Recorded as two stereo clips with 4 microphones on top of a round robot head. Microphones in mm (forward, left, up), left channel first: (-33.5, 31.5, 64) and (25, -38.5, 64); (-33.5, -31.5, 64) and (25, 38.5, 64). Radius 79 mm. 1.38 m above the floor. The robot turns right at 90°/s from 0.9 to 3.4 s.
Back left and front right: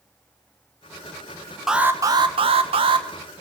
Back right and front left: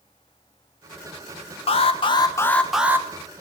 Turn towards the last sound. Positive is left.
turn(degrees=20)